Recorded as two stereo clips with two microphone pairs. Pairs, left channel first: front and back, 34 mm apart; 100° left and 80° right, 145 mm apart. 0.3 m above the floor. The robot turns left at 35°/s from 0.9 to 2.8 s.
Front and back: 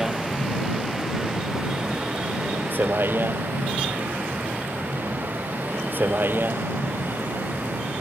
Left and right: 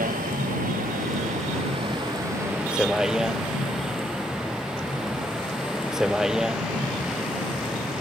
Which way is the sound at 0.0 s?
100° right.